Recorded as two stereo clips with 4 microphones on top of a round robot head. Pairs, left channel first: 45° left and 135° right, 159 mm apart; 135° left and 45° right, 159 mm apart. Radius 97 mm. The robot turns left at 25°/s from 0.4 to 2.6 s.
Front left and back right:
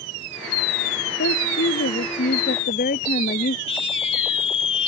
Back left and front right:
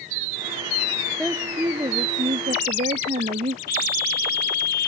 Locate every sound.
1.2 s a woman speaking: 45° left; by 3.6 s 10° left
3.7 s a scream: 105° left